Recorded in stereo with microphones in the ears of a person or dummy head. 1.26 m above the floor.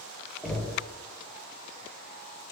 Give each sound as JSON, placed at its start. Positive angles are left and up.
{"t": 0.4, "sound": "knocking", "side_deg": 5, "distance_m": 0.7}